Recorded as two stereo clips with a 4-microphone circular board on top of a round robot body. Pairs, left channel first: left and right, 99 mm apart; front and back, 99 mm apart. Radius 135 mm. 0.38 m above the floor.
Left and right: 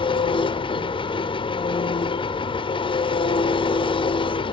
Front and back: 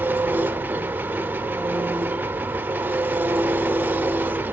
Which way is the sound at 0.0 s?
110° left.